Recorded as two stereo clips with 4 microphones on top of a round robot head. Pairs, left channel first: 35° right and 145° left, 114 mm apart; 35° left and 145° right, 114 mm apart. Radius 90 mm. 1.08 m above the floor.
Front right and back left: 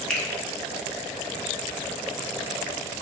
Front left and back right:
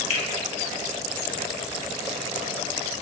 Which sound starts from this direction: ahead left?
A finger snap, at 0.1 s.